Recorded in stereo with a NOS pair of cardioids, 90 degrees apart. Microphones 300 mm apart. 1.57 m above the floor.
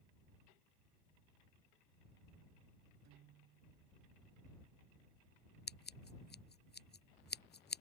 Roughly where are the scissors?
Ahead left.